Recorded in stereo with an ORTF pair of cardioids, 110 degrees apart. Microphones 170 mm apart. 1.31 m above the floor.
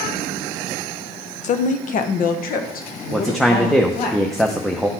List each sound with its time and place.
1.4 s a woman speaking: 45° left, 0.7 m; by 4.1 s 65° left, 2 m
3.1 s a man speaking: straight ahead, 0.7 m